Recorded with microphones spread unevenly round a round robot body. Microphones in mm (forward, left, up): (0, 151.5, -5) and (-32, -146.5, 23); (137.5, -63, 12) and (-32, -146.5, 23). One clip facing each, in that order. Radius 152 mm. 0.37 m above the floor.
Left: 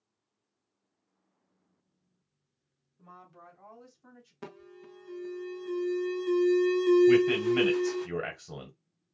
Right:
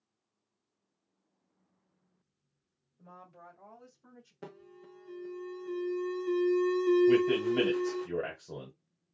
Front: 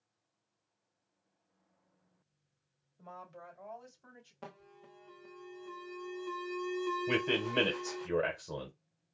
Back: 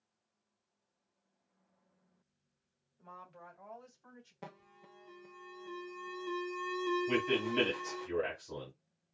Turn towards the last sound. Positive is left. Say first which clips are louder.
# left 3 dB, even
turn(degrees=25)